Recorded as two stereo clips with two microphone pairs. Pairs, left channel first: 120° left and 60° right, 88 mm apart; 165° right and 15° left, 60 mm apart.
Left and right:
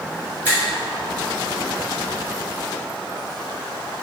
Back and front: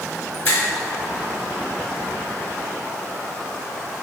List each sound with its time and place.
0.5 s a finger snap: 120° right, 1.6 m